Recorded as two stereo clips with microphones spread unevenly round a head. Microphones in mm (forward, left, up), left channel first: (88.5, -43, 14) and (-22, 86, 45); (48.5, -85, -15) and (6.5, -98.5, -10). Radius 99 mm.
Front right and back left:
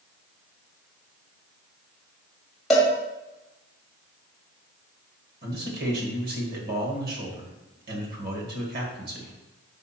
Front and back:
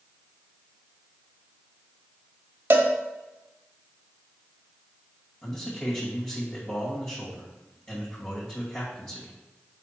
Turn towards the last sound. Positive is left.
turn(degrees=100)